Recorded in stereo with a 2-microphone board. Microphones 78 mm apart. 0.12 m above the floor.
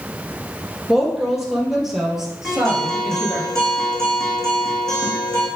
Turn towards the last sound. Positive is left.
turn(degrees=10)  # may be behind; listen again after turning